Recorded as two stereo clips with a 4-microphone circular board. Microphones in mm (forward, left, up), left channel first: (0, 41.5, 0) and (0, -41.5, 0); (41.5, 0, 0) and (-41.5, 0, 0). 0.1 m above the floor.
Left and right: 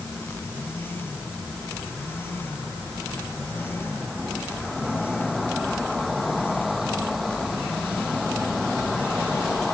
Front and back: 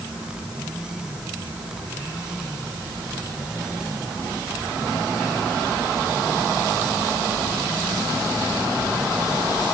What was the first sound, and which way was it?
Only background noise.